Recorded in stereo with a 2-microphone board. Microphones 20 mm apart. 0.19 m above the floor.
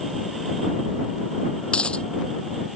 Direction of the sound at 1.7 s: 70° left (ahead or behind).